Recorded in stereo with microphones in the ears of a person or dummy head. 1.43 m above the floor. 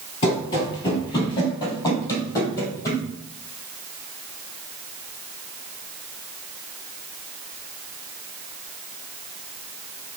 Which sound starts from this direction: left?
Running footsteps, at 0.2 s.